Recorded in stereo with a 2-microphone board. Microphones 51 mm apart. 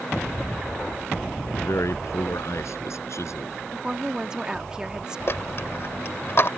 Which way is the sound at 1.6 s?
70° left (ahead or behind).